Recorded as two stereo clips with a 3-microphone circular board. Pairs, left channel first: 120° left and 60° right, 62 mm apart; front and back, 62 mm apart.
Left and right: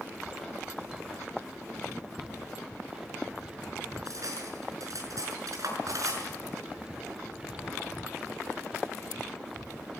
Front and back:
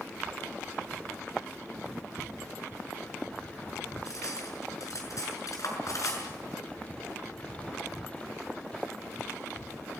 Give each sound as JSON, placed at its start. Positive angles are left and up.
{"t": 4.0, "sound": "cutlery clinking", "azimuth_deg": -30, "distance_m": 6.0}